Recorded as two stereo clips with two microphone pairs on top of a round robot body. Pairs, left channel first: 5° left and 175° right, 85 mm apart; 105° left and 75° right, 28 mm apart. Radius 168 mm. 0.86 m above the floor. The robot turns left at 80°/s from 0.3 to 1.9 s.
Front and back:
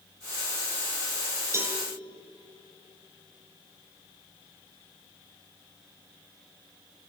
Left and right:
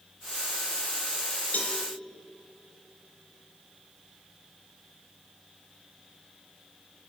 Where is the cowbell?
135° left, 1.8 m; by 1.8 s 115° left, 1.8 m.